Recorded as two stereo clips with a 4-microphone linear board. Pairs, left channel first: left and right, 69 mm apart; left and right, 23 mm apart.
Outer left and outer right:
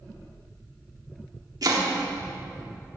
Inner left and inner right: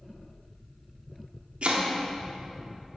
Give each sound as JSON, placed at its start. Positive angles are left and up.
{"t": 1.6, "sound": "chopping", "side_deg": -65, "distance_m": 1.0}